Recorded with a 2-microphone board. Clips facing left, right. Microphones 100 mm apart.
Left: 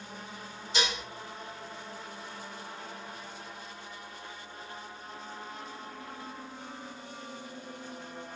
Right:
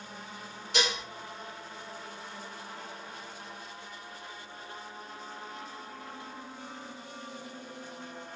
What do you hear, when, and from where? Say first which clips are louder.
0.7 s dishes clattering: right 1 dB; 65° right (ahead or behind), 1.8 m